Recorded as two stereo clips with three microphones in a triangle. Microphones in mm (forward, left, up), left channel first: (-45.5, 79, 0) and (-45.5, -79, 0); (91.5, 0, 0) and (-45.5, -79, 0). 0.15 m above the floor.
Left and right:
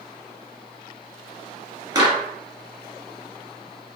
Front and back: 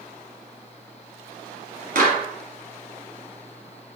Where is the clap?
150° right, 1.7 m.